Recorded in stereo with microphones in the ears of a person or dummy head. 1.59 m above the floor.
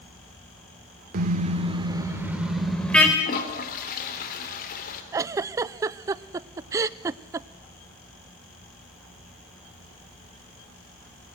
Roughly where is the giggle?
Right.